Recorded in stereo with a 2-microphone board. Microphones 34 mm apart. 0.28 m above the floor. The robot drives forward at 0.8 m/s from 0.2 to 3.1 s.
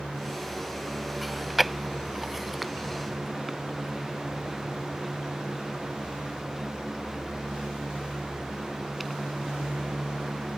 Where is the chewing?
5° right (ahead or behind); by 9.4 s centre (ahead or behind).